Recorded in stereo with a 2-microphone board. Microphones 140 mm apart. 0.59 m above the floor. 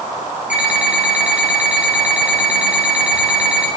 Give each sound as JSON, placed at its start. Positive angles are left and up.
{"t": 0.5, "sound": "an alarm clock", "side_deg": -10, "distance_m": 2.5}